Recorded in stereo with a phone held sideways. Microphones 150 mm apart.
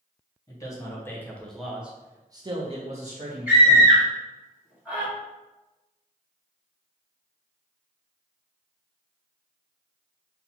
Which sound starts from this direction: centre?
A scream, at 3.5 s.